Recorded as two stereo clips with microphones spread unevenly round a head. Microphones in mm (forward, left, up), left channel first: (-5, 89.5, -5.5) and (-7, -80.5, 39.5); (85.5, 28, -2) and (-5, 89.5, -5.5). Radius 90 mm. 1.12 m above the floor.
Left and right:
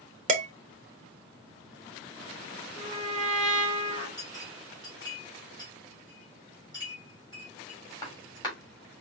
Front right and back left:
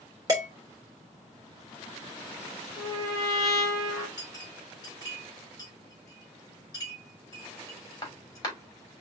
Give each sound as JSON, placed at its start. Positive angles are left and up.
{"t": 0.3, "sound": "dishes clattering", "azimuth_deg": -140, "distance_m": 1.0}
{"t": 2.8, "sound": "a trumpet", "azimuth_deg": 20, "distance_m": 1.8}
{"t": 4.2, "sound": "a clink", "azimuth_deg": 20, "distance_m": 2.5}